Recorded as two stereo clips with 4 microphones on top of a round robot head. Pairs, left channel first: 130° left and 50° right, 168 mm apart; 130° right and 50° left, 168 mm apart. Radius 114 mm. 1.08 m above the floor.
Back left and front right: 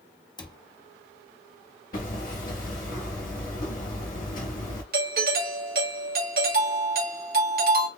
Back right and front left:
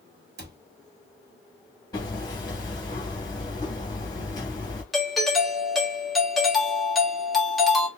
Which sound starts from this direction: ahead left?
A cupboard door, at 0.4 s.